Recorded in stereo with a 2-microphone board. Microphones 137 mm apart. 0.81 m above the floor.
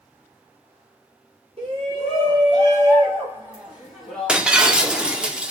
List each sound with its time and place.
1.6 s a shout: 45° right (ahead or behind), 2.5 m; by 5.3 s 25° left (ahead or behind), 2 m
4.3 s breaking glass: 5° right (ahead or behind), 0.6 m